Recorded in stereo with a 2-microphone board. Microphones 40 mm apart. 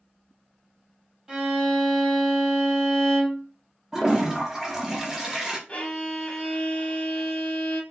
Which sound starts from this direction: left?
A violin, at 5.7 s.